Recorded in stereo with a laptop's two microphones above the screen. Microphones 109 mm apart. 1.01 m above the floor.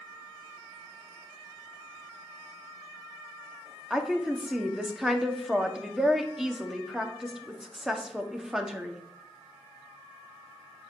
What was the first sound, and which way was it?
A woman speaking, 5° right (ahead or behind).